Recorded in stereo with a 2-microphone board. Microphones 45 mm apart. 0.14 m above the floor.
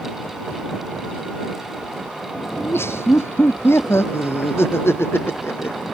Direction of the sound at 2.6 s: 75° left (ahead or behind).